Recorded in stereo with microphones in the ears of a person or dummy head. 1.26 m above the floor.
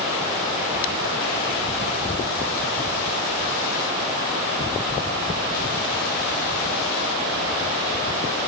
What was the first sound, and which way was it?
Only background noise.